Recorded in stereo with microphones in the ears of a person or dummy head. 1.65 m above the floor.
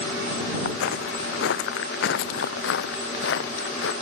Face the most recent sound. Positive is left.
turn(degrees=75)  # may be behind; listen again after turning